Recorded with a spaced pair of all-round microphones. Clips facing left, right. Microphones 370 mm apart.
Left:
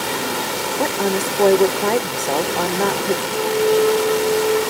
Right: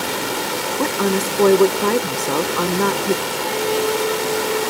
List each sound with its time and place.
0.8 s a woman speaking: 15° right (ahead or behind), 0.7 m
3.3 s a flute: 65° left (ahead or behind), 6 m